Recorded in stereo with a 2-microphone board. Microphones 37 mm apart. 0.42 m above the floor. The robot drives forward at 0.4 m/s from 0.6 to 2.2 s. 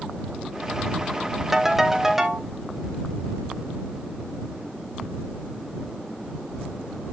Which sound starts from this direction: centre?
A ringtone, at 1.5 s.